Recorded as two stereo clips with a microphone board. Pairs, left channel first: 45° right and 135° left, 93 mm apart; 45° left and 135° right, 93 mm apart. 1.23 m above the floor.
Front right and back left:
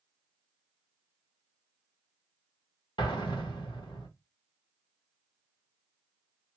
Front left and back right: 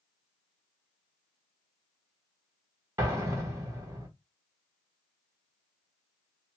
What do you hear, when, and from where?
3.0 s an explosion: 80° right, 1.2 m